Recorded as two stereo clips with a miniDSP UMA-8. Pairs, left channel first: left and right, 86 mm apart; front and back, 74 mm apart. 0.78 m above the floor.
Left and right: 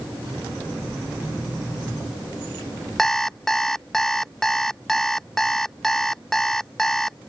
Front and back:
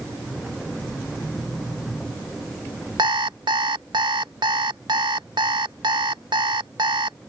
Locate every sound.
3.0 s an alarm clock: 175° left